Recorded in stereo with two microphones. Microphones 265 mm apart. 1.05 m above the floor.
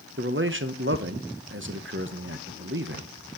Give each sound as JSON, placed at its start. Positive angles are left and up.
{"t": 0.2, "sound": "a man speaking", "side_deg": -45, "distance_m": 0.6}